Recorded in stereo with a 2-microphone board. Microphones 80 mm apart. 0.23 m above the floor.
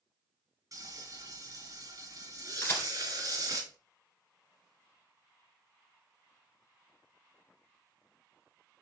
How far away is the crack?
About 1.8 m.